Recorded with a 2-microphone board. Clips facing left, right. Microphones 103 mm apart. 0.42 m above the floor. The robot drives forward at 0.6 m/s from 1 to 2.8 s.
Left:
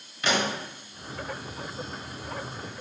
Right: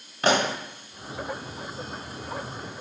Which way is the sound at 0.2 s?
50° right (ahead or behind).